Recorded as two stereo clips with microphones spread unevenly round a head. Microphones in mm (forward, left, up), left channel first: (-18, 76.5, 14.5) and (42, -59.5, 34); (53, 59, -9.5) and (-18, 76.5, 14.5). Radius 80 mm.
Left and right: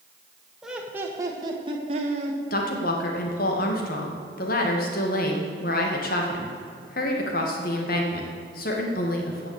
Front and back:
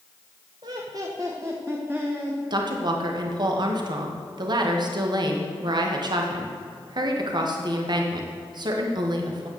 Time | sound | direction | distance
0.6 | laughter | 150° right | 1.6 m
2.5 | a woman speaking | 145° left | 2 m